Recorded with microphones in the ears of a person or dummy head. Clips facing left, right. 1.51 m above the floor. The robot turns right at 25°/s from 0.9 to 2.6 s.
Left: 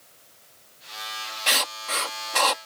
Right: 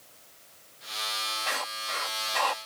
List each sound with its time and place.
1.5 s writing: 45° left (ahead or behind); by 2.7 s 40° left (ahead or behind)